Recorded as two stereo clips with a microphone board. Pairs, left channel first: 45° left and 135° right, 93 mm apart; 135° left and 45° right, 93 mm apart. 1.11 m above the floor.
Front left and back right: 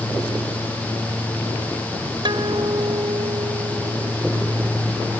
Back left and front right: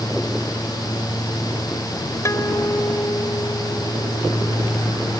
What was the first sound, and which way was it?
A guitar, 165° right.